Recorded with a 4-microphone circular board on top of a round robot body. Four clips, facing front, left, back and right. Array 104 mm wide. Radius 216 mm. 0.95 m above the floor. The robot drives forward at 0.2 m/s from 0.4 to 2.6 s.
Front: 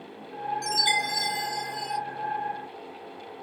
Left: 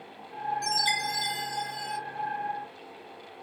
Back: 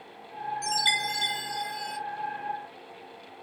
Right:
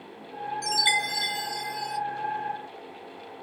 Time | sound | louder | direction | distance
0.6 | a chime | right 1 dB, front 1 dB | 100° right | 1.6 m